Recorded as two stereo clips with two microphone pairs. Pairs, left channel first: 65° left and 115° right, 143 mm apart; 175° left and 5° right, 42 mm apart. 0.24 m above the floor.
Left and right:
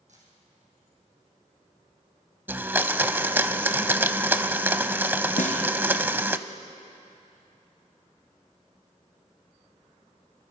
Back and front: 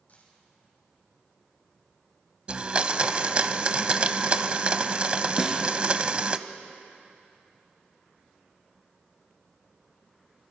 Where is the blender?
50° right, 0.7 m.